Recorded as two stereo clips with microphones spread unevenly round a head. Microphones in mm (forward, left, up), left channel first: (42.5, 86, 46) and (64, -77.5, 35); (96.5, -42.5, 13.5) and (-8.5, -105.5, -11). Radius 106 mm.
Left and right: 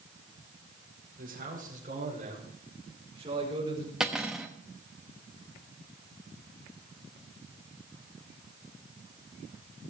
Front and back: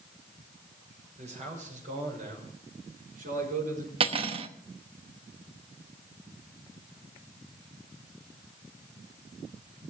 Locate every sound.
1.2 s a man speaking: 130° right, 6 m; by 3.9 s 155° right, 5.5 m
4.0 s cutlery clinking: 175° right, 0.7 m